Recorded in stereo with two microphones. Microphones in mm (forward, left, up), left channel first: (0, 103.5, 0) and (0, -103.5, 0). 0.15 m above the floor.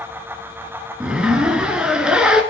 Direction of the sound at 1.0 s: 5° right (ahead or behind).